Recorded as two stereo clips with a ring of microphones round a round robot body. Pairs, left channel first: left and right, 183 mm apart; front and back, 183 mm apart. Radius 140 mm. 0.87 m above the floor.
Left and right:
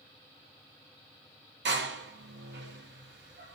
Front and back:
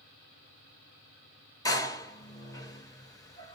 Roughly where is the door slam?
Right.